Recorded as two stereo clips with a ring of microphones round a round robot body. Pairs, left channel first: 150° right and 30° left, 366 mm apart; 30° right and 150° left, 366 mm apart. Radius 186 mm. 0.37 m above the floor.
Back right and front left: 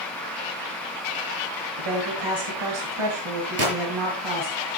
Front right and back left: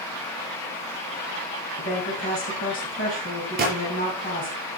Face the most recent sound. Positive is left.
turn(degrees=85)